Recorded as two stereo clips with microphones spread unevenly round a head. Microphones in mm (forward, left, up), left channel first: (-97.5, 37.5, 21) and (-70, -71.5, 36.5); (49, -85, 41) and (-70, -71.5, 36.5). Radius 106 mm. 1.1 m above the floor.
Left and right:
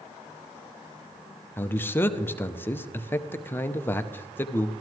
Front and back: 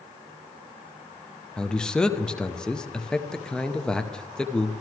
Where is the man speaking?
75° left, 0.6 m.